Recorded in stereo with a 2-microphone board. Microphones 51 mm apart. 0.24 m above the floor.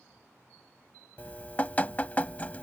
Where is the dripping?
30° left (ahead or behind).